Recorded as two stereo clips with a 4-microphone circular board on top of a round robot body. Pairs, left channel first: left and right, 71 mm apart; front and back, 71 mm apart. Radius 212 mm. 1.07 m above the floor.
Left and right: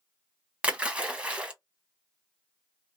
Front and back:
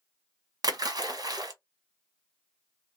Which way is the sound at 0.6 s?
165° right.